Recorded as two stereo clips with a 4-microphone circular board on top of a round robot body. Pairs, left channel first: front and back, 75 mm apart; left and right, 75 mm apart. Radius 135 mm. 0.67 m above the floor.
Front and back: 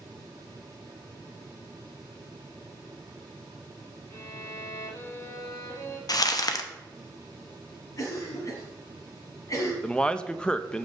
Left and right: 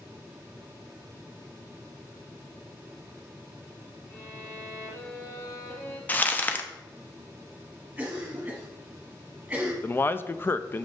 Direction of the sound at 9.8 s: 65° left.